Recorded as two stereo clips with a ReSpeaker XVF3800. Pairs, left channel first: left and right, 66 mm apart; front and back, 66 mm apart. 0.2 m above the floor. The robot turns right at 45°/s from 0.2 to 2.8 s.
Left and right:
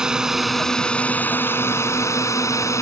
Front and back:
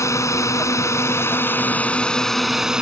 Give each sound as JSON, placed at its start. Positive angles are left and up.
{"t": 0.0, "sound": "a drone", "azimuth_deg": -10}